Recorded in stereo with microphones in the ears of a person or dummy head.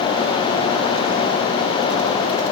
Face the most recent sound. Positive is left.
No sound to turn to.